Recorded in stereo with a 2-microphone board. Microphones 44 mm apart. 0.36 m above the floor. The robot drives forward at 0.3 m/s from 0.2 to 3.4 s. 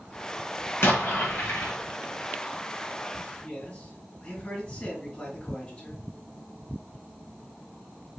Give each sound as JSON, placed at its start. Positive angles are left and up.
{"t": 0.8, "sound": "an explosion", "side_deg": 60, "distance_m": 1.7}
{"t": 3.4, "sound": "a man speaking", "side_deg": 30, "distance_m": 2.5}